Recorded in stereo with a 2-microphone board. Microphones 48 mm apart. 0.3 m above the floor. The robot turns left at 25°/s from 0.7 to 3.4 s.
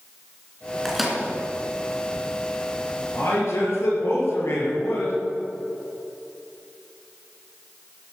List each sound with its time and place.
0.8 s a microwave: 5° right (ahead or behind), 3 m; by 1.2 s centre (ahead or behind), 3 m
3.1 s a man speaking: 65° left (ahead or behind), 5 m; by 5.1 s 70° left (ahead or behind), 5 m